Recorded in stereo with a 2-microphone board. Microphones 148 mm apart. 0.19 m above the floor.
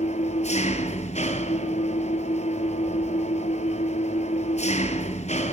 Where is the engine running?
45° left (ahead or behind), 1.8 m.